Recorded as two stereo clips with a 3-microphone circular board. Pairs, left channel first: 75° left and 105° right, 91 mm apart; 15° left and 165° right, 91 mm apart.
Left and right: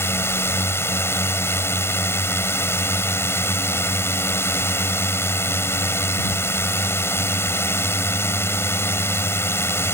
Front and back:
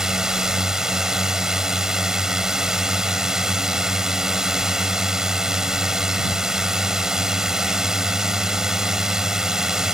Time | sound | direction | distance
0.0 | a drone | 115° left | ?